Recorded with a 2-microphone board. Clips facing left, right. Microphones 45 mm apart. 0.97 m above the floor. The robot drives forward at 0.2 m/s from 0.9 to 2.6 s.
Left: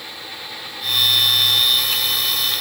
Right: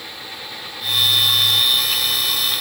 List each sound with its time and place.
Only background noise.